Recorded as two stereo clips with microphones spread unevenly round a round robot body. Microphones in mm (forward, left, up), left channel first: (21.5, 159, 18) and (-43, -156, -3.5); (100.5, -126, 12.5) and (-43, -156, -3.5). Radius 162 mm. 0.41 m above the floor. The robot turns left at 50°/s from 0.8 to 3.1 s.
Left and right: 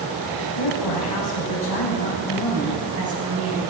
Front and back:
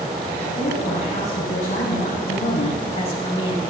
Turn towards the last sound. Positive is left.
turn(degrees=-40)